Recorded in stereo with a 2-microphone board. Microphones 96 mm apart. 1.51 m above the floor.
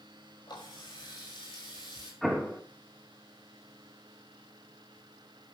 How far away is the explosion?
About 2.5 m.